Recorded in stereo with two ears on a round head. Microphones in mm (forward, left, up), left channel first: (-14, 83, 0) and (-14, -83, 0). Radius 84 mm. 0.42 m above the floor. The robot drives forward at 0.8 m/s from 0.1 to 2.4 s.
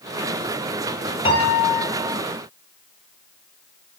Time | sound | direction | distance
1.2 | a piano | 25° left (ahead or behind) | 3 m